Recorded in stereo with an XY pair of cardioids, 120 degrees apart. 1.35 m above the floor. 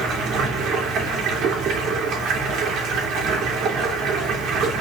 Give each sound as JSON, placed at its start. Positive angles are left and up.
{"t": 0.0, "sound": "running water", "azimuth_deg": -65, "distance_m": 3.0}